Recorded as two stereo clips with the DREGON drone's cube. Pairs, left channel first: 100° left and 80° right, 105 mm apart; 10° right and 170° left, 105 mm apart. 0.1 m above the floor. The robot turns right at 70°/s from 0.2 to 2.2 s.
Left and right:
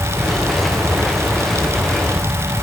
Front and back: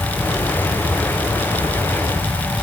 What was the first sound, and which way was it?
Only background noise.